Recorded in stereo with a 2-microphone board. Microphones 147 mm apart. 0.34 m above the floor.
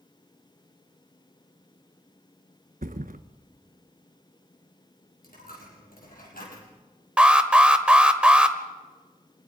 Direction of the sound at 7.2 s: 5° right (ahead or behind).